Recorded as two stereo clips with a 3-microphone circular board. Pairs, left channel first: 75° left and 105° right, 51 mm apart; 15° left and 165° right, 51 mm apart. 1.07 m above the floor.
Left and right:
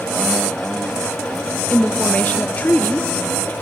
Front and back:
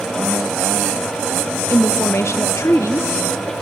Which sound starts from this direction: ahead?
A woman speaking, at 1.7 s.